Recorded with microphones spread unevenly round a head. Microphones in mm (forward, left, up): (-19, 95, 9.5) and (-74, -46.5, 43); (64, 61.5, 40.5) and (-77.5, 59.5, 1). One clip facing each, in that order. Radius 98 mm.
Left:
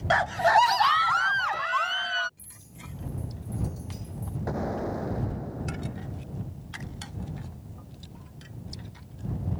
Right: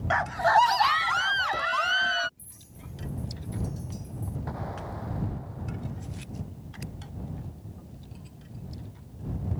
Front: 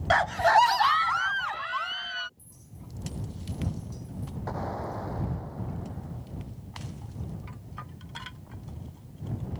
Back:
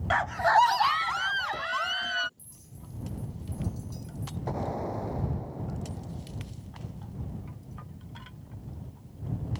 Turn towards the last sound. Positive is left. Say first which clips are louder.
# left 11 dB, back 2 dB
turn(degrees=110)